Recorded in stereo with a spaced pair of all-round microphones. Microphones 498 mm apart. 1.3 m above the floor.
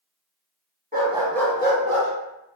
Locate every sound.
0.9 s a dog barking: 20° right (ahead or behind), 0.9 m; by 2.1 s 35° left (ahead or behind), 1.0 m